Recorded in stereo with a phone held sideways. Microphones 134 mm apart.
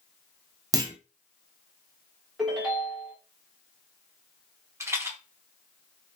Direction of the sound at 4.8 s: 20° right (ahead or behind).